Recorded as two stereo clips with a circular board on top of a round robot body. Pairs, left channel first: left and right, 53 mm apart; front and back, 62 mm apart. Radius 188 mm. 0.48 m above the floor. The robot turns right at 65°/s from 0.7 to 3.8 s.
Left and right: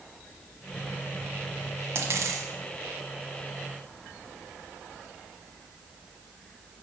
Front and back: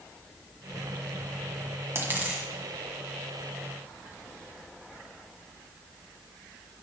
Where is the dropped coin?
130° right, 1.6 m; by 2.5 s 95° right, 1.6 m.